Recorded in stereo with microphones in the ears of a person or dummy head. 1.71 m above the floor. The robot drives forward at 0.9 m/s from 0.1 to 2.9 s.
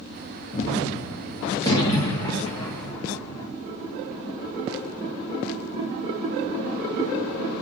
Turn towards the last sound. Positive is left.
turn(degrees=15)  # may be behind; listen again after turning